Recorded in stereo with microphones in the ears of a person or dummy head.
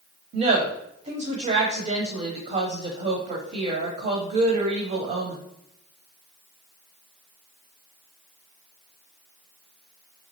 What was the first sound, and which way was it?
A woman speaking, 35° right (ahead or behind).